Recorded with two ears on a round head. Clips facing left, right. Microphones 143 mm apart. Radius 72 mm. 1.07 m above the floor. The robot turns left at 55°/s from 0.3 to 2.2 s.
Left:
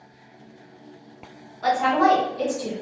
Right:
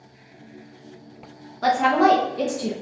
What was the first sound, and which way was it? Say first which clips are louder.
A woman speaking: right 2 dB; 115° right.